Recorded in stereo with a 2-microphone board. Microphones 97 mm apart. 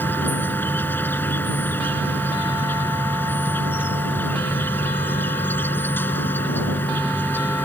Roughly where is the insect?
Left.